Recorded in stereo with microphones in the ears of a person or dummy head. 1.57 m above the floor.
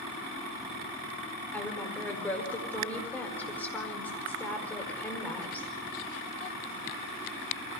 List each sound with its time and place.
1.5 s a woman speaking: 5° left (ahead or behind), 5 m